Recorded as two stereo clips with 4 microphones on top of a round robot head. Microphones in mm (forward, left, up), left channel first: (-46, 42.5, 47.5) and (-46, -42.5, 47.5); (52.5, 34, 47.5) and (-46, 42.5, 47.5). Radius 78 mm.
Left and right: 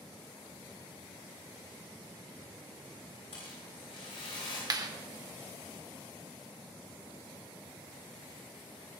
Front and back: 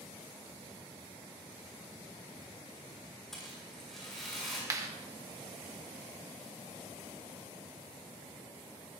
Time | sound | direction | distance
3.3 | a rattle | 80° left | 7.5 m
4.7 | a clap | 125° right | 1.3 m